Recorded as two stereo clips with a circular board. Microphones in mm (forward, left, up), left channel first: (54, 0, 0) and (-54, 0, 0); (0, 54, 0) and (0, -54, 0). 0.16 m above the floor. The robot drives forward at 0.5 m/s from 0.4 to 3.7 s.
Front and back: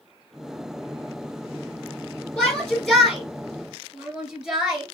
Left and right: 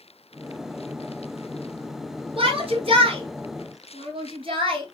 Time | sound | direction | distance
2.4 | a shout | 80° right | 3 m